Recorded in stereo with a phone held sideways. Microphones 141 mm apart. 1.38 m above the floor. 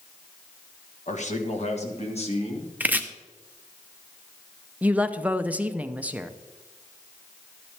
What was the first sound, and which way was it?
A man speaking, 65° left (ahead or behind).